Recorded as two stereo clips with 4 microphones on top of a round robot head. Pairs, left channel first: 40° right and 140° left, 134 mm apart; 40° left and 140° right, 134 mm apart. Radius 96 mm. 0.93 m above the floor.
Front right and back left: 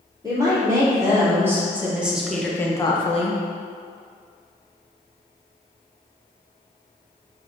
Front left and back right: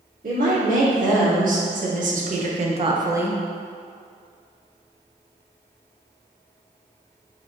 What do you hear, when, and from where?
0.2 s a woman speaking: 160° right, 1.9 m; by 3.4 s 50° right, 0.6 m